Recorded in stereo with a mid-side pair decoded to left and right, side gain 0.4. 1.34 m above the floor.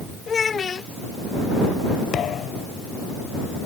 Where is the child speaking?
45° left.